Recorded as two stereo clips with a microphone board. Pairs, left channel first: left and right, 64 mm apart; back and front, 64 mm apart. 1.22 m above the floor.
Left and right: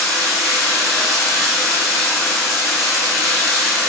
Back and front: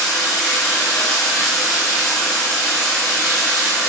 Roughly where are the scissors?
I don't hear scissors.